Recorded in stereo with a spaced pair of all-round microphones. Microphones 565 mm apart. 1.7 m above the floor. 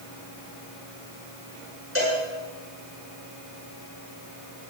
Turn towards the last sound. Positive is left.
turn(degrees=-20)  # may be behind; listen again after turning